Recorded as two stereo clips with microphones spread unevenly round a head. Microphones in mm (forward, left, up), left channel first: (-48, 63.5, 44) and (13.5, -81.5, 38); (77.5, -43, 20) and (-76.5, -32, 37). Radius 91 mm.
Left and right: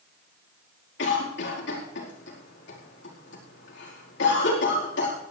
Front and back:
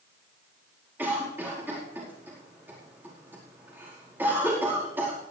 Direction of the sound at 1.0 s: 95° left.